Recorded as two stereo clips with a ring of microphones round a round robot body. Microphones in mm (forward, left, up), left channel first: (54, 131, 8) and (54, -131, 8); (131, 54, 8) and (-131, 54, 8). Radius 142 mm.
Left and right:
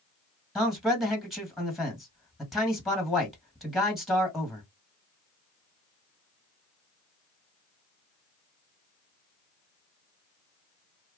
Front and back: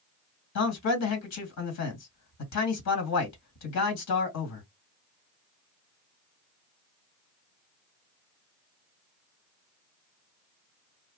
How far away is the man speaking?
About 2 m.